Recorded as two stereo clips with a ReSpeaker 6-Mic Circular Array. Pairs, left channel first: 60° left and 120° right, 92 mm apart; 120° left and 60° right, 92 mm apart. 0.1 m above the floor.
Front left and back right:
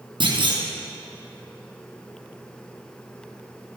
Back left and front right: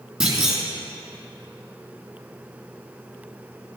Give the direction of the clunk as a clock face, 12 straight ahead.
5 o'clock.